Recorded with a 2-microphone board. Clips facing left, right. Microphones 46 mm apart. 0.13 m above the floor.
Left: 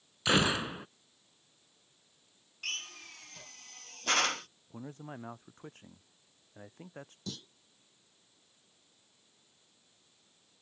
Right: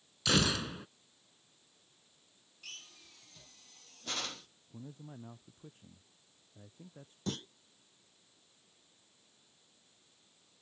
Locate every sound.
0.2 s a gunshot: 25° left (ahead or behind)
2.6 s a drill: 65° left (ahead or behind)
4.7 s a man speaking: 75° left (ahead or behind)
7.3 s a clunk: 45° right (ahead or behind)